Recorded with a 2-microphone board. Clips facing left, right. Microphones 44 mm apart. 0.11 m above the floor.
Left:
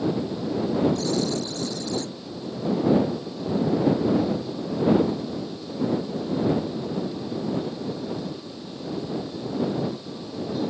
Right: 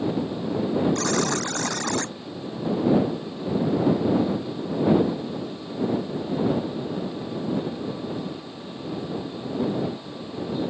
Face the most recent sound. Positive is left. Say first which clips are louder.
# right 1 dB
turn(degrees=-60)  # may be behind; listen again after turning